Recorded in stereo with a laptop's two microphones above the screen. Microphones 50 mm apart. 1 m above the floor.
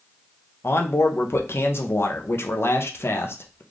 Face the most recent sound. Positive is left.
turn(degrees=50)  # may be behind; listen again after turning